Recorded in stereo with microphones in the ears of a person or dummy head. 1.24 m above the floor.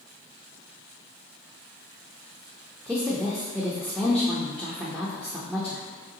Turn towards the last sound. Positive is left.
turn(degrees=-5)  # may be behind; listen again after turning